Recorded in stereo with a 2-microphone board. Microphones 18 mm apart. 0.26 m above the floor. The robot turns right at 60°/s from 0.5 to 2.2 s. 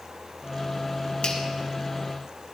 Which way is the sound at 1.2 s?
70° left (ahead or behind).